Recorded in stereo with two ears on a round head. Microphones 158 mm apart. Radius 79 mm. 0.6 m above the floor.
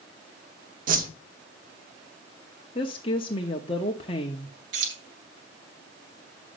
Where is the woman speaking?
30° left (ahead or behind), 0.7 m.